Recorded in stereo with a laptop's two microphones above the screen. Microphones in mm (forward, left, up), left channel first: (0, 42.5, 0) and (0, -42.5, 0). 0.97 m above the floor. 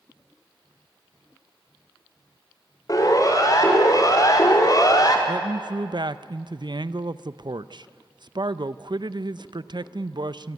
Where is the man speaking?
55° right (ahead or behind), 0.6 m.